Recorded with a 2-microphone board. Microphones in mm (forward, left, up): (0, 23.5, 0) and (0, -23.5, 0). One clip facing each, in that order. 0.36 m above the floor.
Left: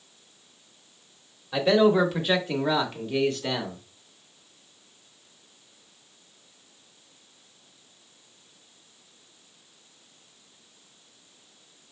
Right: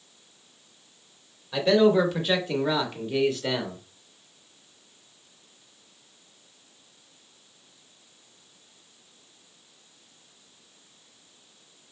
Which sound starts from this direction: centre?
A man speaking, at 1.5 s.